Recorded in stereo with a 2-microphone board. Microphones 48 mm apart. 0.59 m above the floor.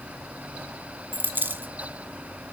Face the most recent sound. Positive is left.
turn(degrees=-45)  # may be behind; listen again after turning